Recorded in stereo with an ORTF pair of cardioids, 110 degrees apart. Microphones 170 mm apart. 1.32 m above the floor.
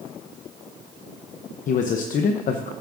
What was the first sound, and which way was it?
A man speaking, 50° left.